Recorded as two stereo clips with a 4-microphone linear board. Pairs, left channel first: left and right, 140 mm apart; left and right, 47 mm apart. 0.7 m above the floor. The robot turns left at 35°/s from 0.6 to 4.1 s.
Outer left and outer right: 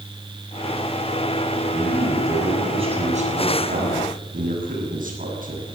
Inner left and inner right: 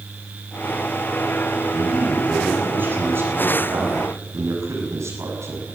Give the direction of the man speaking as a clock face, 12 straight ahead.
12 o'clock.